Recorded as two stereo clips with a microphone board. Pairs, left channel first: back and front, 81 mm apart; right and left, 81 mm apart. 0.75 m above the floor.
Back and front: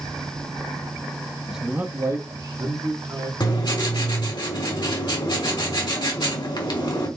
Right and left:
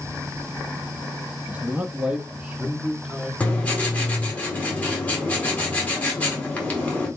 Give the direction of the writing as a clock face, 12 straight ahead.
5 o'clock.